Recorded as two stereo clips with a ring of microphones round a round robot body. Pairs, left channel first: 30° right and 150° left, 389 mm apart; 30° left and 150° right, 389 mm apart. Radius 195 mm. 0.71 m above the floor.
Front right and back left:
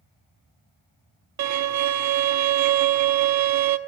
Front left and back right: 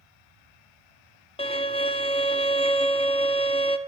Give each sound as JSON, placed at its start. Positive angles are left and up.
{"t": 1.4, "sound": "a violin", "azimuth_deg": 105, "distance_m": 1.1}